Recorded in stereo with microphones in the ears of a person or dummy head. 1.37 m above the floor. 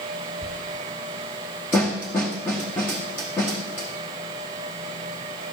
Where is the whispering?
10° right (ahead or behind), 1.5 m.